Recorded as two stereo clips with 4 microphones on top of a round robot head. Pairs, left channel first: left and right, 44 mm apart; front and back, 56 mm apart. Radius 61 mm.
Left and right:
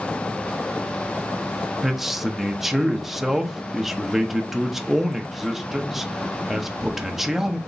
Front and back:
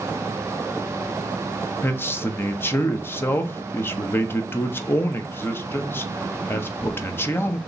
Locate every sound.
1.8 s a man speaking: 10° right, 0.7 m